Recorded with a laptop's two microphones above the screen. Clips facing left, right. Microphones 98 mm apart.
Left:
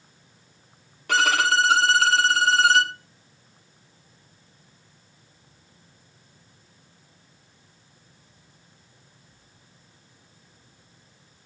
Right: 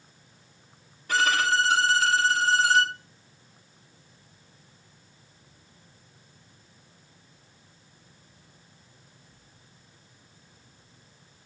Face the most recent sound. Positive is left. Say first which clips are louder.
# left 3 dB
turn(degrees=75)  # may be behind; listen again after turning